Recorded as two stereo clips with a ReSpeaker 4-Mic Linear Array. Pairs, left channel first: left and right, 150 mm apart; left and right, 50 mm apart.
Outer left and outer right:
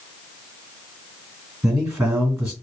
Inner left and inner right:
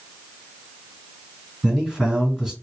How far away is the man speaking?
About 1.8 m.